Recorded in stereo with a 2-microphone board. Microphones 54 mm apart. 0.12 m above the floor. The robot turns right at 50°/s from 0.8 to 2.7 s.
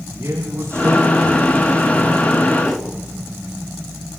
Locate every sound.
0.1 s a man speaking: 45° right, 8 m; by 2.5 s 40° left, 8 m
2.6 s a whoosh: 5° right (ahead or behind), 3 m; by 2.9 s 10° right (ahead or behind), 3 m